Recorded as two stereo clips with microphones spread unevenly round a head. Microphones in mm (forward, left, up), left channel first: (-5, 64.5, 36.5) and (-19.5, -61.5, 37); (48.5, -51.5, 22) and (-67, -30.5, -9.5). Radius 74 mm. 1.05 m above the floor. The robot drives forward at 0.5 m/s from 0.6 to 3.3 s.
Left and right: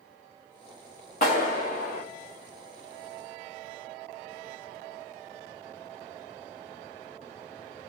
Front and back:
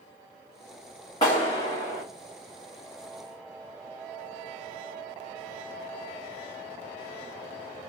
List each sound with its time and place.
1.2 s a clap: 55° left, 2 m; by 2.0 s 70° left, 1.8 m